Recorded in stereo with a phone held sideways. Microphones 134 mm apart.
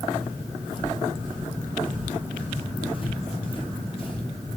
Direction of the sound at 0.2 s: 35° left (ahead or behind).